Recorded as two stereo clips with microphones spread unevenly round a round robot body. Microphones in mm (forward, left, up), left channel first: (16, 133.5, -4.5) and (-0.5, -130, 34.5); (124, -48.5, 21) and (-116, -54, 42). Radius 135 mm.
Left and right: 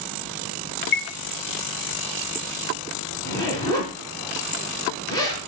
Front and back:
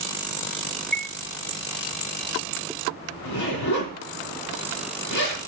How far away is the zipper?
About 5.5 m.